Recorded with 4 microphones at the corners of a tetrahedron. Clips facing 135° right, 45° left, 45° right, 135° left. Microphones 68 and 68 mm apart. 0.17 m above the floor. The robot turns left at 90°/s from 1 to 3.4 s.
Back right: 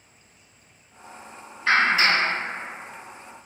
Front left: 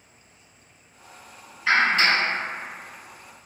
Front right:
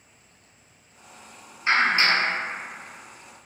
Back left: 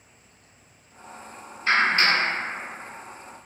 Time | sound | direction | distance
1.7 | a clap | 35° right | 1.1 m